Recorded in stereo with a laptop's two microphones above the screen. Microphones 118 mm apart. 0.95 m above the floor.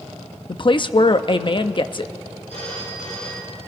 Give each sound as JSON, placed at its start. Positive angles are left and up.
{"t": 0.5, "sound": "a woman speaking", "side_deg": 45, "distance_m": 0.9}
{"t": 2.5, "sound": "a phone ringing", "side_deg": 70, "distance_m": 9.0}